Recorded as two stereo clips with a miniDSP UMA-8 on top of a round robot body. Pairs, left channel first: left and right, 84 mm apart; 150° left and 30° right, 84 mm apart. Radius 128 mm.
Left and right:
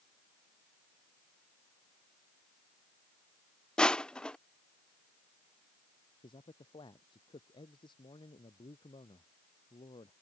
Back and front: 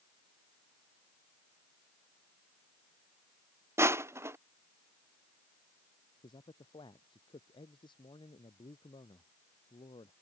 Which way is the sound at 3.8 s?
15° left.